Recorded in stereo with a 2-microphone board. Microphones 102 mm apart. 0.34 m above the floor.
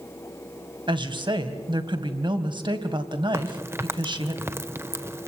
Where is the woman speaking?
50° right (ahead or behind), 2.5 m.